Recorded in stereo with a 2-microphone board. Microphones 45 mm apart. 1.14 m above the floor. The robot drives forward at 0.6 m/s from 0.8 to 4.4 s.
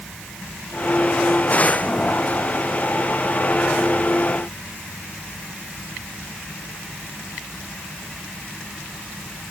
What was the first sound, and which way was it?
Only background noise.